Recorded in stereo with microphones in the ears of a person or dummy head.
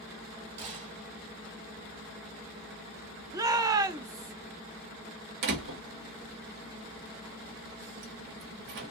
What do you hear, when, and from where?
0.6 s a gunshot: 35° right (ahead or behind), 1.9 m
3.3 s a shout: 20° right (ahead or behind), 0.6 m
5.4 s a door slam: 60° right (ahead or behind), 1.2 m